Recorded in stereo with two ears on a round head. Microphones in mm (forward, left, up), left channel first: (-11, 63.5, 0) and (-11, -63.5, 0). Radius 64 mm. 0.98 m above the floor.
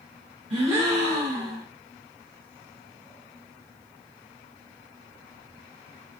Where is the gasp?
40° right (ahead or behind), 1.2 m.